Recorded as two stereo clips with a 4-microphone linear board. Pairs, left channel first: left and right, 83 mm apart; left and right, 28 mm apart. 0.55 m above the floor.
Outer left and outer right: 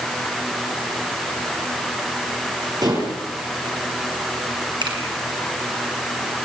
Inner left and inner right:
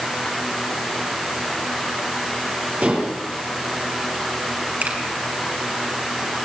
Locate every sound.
2.8 s dishes clattering: 50° right (ahead or behind), 8 m
4.8 s a finger snap: 65° right (ahead or behind), 6.5 m